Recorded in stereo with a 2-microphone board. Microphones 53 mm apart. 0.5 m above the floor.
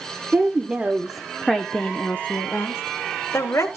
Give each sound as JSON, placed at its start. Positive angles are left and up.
{"t": 0.3, "sound": "a woman speaking", "side_deg": -30, "distance_m": 1.0}